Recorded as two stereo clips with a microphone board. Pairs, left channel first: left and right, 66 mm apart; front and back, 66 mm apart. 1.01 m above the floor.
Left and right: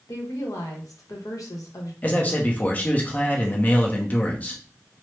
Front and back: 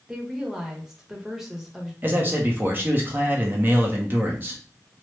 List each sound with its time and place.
0.1 s a woman speaking: 100° left, 1.0 m
2.0 s a man speaking: 140° left, 0.7 m